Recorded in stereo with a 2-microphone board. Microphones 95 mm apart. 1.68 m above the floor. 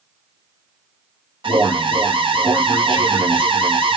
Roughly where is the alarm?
Right.